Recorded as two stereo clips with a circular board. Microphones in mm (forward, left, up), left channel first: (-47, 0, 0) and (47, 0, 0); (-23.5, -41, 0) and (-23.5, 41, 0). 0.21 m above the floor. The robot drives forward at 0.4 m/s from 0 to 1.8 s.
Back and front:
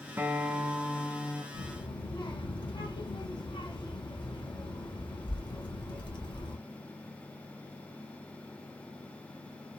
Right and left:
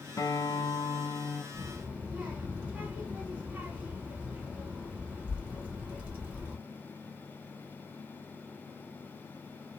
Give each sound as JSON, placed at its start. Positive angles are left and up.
{"t": 0.2, "sound": "a guitar", "azimuth_deg": -65, "distance_m": 0.6}
{"t": 1.5, "sound": "a child speaking", "azimuth_deg": 170, "distance_m": 1.9}